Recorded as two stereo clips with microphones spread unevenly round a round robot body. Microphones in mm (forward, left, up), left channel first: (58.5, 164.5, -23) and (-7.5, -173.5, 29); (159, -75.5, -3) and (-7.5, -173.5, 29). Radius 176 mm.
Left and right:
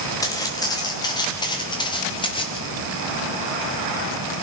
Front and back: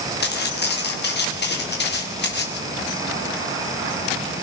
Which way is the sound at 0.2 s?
Straight ahead.